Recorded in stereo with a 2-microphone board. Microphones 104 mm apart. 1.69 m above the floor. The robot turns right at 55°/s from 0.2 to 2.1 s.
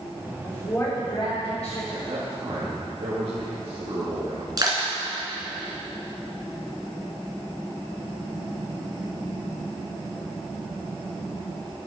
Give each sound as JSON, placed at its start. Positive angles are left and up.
{"t": 0.4, "sound": "a woman speaking", "azimuth_deg": 5, "distance_m": 5.0}
{"t": 1.9, "sound": "a man speaking", "side_deg": -65, "distance_m": 2.5}
{"t": 4.6, "sound": "crushing", "side_deg": -40, "distance_m": 3.5}